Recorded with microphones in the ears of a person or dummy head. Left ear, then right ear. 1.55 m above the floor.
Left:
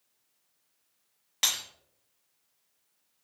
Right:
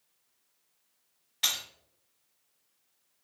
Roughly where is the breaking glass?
Left.